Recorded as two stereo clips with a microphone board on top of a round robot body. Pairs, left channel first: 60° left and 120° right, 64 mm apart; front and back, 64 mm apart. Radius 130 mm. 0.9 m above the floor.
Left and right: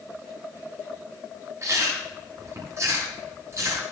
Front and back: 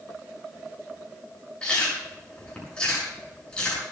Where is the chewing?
75° right, 8 m.